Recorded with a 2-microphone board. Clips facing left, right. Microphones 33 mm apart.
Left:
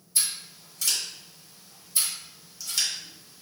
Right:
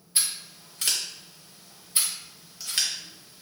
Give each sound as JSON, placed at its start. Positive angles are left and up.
{"t": 0.1, "sound": "scissors", "side_deg": -45, "distance_m": 0.7}